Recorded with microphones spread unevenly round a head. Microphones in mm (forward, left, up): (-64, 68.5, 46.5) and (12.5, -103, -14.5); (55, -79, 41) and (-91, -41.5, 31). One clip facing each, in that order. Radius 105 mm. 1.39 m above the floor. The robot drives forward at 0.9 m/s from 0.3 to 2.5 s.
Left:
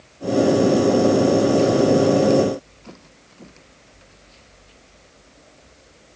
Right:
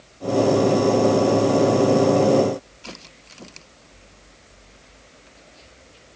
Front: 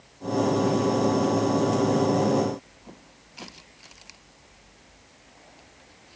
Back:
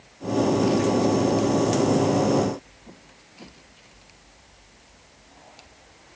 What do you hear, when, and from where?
Only background noise.